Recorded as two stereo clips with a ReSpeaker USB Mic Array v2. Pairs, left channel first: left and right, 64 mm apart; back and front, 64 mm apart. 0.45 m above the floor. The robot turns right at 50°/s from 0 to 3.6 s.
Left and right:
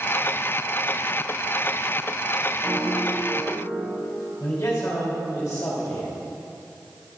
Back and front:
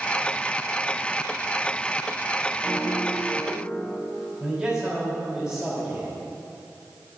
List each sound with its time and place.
2.6 s a piano: 130° right, 3 m; by 4.0 s 80° right, 3 m
4.4 s a man speaking: 65° left, 2.5 m